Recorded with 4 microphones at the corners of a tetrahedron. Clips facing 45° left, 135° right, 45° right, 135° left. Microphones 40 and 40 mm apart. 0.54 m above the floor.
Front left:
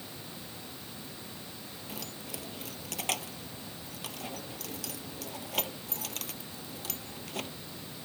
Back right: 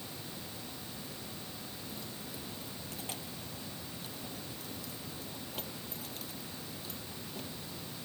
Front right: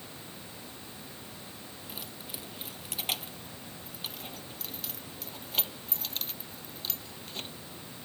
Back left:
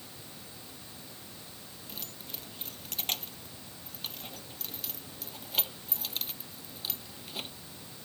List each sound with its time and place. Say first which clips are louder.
1.9 s keys jangling: front left 6 dB, front right 1 dB; 35° left; by 7.5 s 50° left